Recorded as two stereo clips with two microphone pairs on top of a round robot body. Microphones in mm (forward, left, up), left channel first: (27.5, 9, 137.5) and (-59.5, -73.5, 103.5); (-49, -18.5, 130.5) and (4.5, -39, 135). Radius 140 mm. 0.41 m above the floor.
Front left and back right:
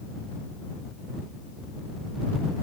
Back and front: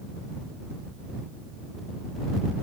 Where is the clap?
No clap in this recording.